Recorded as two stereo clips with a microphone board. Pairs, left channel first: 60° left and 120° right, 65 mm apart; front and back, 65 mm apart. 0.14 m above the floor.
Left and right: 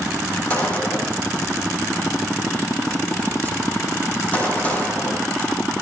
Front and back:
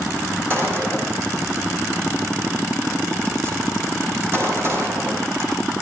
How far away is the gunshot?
About 7 m.